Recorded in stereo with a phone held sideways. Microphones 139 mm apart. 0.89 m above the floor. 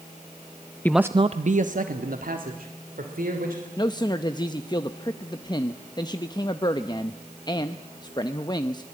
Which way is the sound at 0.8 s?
15° left (ahead or behind).